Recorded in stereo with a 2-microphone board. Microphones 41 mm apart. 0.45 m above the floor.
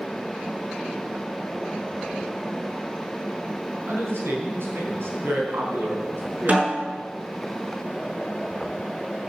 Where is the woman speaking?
75° right (ahead or behind), 4 m.